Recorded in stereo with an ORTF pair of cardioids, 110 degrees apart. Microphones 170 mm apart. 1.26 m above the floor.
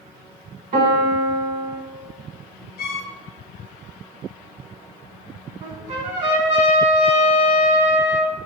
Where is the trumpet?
45° right, 0.9 m.